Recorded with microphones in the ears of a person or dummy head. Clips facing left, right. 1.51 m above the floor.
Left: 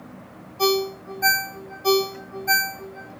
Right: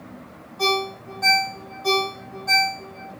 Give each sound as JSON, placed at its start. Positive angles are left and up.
{"t": 0.6, "sound": "a ringtone", "side_deg": 5, "distance_m": 1.7}